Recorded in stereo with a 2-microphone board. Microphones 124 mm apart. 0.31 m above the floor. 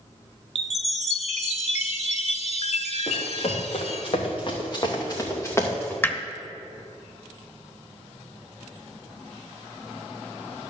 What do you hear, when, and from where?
0.6 s a chime: 65° left (ahead or behind), 0.7 m
3.1 s running footsteps: 65° left (ahead or behind), 3 m; by 5.9 s 15° left (ahead or behind), 2.5 m
6.0 s hammering: 15° left (ahead or behind), 0.7 m